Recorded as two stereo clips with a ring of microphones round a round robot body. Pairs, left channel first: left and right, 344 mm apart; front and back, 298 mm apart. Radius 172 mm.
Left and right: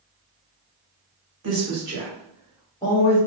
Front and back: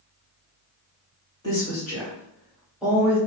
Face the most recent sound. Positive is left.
turn(degrees=105)